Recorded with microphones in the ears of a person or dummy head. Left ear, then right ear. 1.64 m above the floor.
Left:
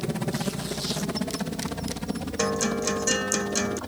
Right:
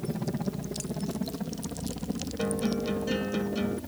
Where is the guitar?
55° left (ahead or behind).